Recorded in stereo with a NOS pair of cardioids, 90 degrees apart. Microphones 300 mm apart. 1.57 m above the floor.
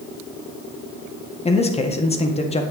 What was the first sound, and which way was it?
A man speaking, 20° left.